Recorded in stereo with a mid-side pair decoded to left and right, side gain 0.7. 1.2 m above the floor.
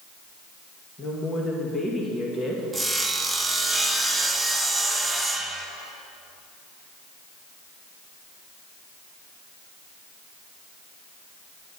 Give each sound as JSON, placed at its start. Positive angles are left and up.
{"t": 1.0, "sound": "a woman speaking", "azimuth_deg": 20, "distance_m": 1.6}
{"t": 2.7, "sound": "sawing", "azimuth_deg": -5, "distance_m": 0.9}